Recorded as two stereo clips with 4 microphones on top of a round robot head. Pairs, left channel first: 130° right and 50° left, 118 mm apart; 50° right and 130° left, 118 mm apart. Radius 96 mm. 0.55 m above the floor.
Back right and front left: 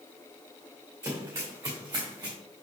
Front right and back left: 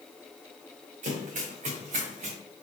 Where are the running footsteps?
115° left, 3.5 m; by 2.4 s 105° left, 3 m.